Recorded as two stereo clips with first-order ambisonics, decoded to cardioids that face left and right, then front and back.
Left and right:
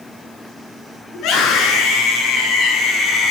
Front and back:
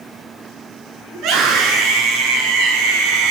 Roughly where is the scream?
Behind left.